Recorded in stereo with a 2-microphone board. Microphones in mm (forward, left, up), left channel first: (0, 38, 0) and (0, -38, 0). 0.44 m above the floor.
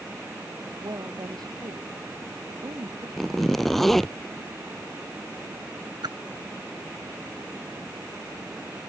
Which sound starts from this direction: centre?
A zipper, at 3.2 s.